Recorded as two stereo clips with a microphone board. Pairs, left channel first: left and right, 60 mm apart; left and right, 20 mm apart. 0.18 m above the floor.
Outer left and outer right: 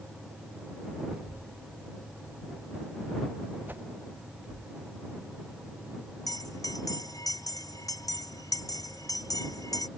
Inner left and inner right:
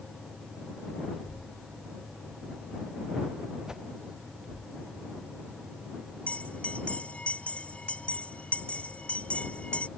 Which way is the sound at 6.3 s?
80° left.